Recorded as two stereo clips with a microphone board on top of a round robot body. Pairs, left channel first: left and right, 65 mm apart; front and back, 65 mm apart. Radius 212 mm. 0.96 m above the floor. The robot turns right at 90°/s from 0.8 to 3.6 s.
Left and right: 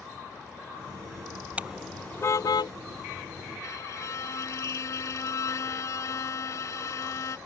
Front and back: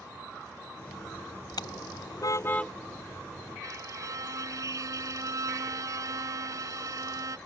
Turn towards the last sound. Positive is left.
turn(degrees=135)